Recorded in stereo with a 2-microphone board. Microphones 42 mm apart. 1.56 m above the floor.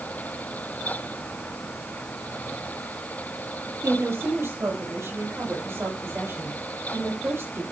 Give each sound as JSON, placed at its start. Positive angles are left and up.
{"t": 3.8, "sound": "a woman speaking", "side_deg": -75, "distance_m": 9.0}